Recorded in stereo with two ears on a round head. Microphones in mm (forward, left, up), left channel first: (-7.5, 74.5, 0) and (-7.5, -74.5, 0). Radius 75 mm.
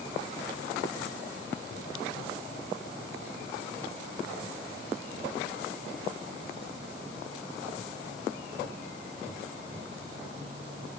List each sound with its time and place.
Only background noise.